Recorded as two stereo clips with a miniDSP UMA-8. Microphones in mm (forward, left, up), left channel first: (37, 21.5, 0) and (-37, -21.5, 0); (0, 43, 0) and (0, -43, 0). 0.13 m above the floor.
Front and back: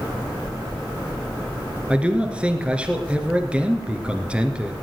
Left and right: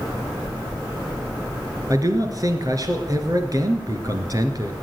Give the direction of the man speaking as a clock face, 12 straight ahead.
3 o'clock.